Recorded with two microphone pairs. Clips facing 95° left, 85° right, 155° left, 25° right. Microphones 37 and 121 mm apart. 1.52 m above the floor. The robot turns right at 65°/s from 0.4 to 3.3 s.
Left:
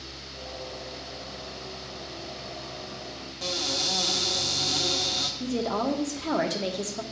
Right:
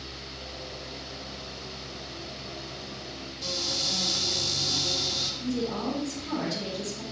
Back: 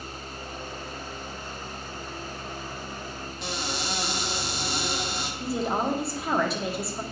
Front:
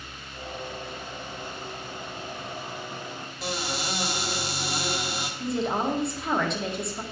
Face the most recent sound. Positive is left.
turn(degrees=70)